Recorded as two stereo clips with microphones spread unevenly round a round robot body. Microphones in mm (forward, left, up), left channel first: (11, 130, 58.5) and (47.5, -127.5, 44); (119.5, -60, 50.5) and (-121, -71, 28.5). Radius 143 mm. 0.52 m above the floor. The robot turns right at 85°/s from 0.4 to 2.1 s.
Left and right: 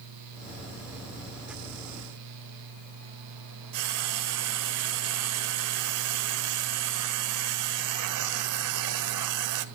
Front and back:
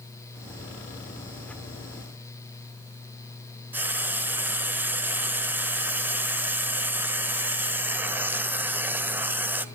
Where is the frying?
95° right, 1.3 m.